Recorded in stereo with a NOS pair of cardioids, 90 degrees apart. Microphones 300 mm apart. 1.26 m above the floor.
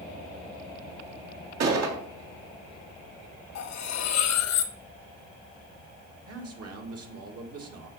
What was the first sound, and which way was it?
A gunshot, 60° right.